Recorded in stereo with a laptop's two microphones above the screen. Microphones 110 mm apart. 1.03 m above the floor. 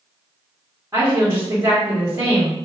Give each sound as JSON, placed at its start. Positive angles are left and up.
{"t": 0.9, "sound": "a woman speaking", "side_deg": -30, "distance_m": 1.5}